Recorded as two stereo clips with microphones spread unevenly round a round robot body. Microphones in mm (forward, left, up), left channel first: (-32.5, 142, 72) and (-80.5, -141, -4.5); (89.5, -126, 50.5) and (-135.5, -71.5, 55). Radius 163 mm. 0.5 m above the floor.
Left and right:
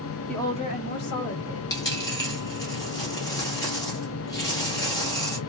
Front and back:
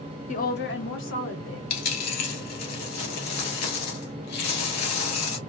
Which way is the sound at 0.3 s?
30° right.